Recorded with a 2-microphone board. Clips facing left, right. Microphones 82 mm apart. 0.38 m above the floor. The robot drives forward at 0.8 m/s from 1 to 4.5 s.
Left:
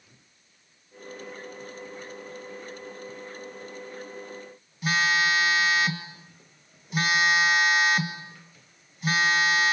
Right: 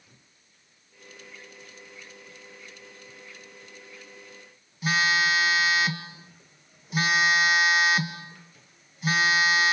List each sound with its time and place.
4.8 s a phone buzzing: centre (ahead or behind), 1.4 m